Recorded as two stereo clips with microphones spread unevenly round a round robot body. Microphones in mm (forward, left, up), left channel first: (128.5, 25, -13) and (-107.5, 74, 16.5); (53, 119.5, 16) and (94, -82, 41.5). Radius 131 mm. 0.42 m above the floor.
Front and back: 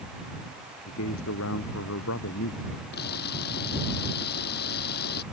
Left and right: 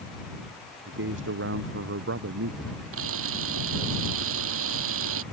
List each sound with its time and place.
0.9 s a man speaking: 55° right
2.9 s a camera shutter: 70° right